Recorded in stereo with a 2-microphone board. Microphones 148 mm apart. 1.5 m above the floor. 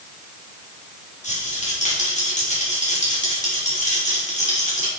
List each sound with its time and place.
1.2 s a rattle: 50° left (ahead or behind), 3.5 m